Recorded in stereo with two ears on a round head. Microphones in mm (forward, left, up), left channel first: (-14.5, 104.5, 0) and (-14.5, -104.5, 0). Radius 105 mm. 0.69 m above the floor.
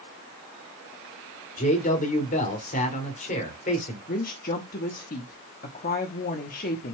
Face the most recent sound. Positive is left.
turn(degrees=40)  # may be behind; listen again after turning